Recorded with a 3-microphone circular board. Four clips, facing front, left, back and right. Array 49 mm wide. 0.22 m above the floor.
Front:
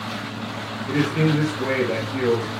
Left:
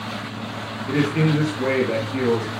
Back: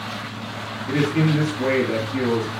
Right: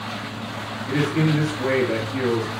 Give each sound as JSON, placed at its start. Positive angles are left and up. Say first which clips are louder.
{"t": 0.9, "sound": "a man speaking", "louder": "left 1 dB, even", "azimuth_deg": 115, "distance_m": 2.5}